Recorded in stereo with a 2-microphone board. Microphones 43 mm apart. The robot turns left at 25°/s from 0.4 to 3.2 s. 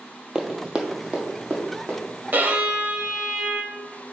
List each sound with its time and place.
0.3 s running footsteps: 15° right (ahead or behind), 0.7 m; by 2.0 s 50° right (ahead or behind), 1.8 m
2.3 s a violin: 45° right (ahead or behind), 0.5 m; by 3.8 s 25° right (ahead or behind), 0.5 m